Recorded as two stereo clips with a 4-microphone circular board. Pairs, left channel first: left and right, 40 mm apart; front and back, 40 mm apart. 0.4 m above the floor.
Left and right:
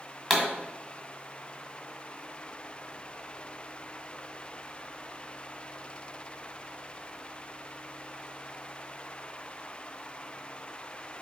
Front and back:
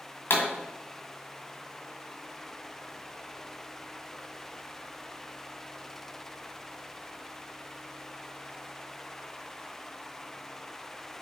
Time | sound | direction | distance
0.3 | a pop | 5° left | 1.9 m